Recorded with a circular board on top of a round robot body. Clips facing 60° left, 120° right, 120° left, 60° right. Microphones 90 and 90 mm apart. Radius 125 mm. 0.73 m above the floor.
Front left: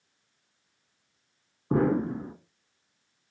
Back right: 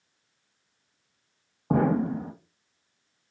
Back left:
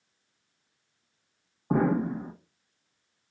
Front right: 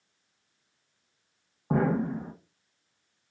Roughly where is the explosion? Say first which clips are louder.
Back right 1 dB, back left 1 dB; behind right.